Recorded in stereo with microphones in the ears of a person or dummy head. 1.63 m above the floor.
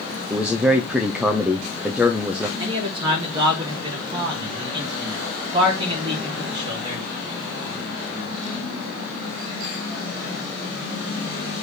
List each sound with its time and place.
0.3 s a man speaking: 10° right (ahead or behind), 0.6 m
2.6 s a man speaking: 30° right (ahead or behind), 2.5 m